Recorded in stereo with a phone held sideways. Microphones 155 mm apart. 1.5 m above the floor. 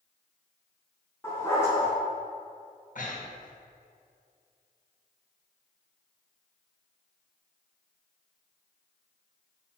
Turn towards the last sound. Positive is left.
turn(degrees=55)  # may be behind; listen again after turning